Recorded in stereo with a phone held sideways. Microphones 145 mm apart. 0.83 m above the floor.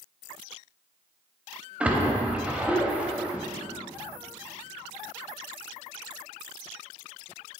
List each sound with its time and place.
1.8 s a splash: 10° right (ahead or behind), 0.7 m